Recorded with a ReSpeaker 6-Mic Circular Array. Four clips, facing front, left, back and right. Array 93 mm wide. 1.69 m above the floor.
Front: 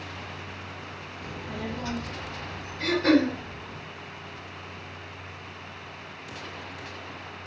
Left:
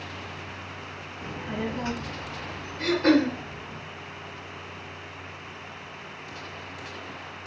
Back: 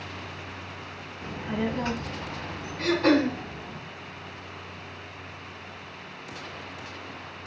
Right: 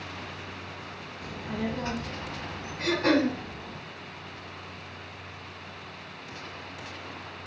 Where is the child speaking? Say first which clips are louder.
Left 1 dB, back 6 dB; 115° left, 0.5 m; by 3.8 s 165° right, 1.5 m.